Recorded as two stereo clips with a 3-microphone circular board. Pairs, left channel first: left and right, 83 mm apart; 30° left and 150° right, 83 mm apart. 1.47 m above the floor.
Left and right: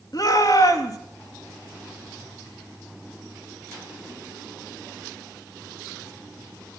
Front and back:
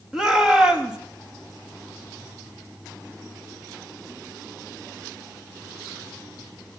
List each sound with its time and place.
0.1 s a shout: 130° left, 2.5 m